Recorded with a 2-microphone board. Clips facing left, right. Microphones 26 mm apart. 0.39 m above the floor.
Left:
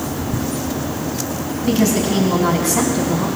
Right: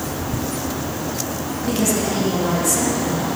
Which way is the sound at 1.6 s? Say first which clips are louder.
Left 4 dB; 35° left (ahead or behind).